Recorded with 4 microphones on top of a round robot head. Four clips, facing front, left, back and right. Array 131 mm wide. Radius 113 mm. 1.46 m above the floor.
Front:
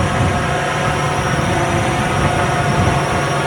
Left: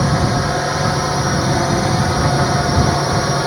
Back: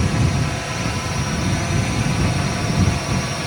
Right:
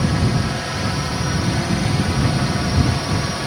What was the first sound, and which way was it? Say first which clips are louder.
A drone: left 4 dB, front 5 dB; 40° left.